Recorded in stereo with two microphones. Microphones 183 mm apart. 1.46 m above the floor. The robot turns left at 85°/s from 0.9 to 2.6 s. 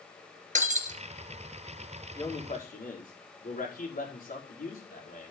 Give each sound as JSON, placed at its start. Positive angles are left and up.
{"t": 0.6, "sound": "breaking glass", "side_deg": -45, "distance_m": 2.5}
{"t": 2.1, "sound": "a man speaking", "azimuth_deg": 165, "distance_m": 4.5}